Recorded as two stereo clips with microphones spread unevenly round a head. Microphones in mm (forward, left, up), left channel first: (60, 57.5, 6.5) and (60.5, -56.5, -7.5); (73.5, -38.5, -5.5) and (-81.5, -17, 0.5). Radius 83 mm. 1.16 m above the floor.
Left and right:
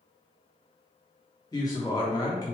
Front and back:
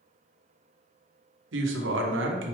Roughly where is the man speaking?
Behind.